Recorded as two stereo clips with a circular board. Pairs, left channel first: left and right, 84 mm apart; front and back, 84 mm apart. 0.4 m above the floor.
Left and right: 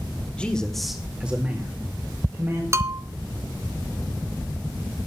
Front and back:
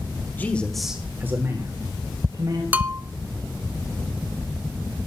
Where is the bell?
120° right, 0.6 m.